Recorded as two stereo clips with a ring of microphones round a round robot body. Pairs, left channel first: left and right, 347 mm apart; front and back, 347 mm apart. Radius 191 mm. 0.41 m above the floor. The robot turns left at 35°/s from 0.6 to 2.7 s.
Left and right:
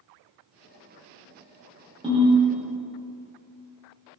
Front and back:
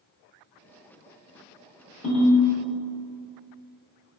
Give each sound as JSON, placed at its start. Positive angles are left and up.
{"t": 2.0, "sound": "a ringtone", "azimuth_deg": -25, "distance_m": 0.9}